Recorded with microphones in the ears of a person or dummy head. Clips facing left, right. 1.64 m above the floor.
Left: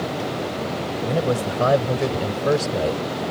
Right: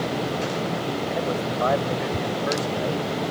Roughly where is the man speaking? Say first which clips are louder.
Left 7 dB; left.